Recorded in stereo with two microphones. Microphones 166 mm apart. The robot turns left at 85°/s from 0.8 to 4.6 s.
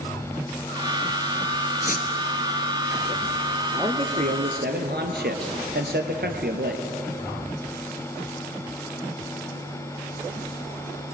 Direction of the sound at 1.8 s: 60° left (ahead or behind).